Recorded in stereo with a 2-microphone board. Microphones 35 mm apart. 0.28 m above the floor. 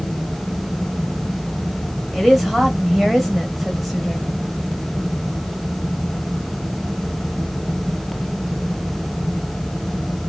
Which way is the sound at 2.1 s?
Centre (ahead or behind).